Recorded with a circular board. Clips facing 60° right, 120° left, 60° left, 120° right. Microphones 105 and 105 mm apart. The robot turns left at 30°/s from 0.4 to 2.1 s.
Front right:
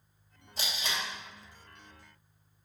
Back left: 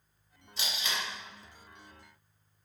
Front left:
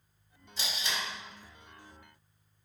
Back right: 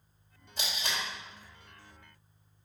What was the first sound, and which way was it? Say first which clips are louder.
Tape being pulled: even, even; 100° right.